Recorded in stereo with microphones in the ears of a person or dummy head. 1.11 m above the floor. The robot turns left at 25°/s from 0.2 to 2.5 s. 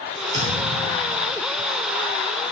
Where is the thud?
35° right (ahead or behind), 0.9 m; by 1.4 s 45° right (ahead or behind), 0.9 m.